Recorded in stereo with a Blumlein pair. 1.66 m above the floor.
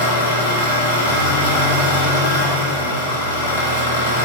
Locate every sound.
0.0 s an engine running: 60° left, 0.9 m